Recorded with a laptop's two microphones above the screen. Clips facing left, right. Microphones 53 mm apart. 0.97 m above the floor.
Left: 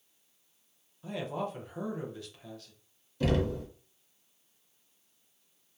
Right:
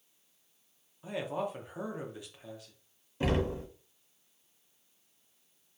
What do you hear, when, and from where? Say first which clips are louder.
1.0 s a man speaking: even; 15° right (ahead or behind), 0.6 m
3.2 s knocking: left 1 dB; 25° right (ahead or behind), 1.1 m